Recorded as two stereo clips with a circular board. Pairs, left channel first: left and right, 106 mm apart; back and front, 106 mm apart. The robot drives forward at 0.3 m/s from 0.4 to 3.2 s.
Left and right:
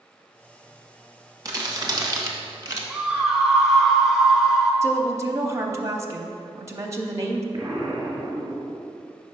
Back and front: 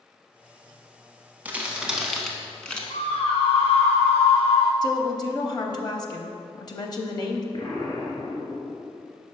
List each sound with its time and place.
1.4 s crumpling: 65° right, 0.9 m; by 2.8 s 115° right, 0.9 m
2.9 s a scream: 175° right, 0.8 m
4.8 s a woman speaking: 145° right, 0.6 m
7.5 s an explosion: 145° right, 1.2 m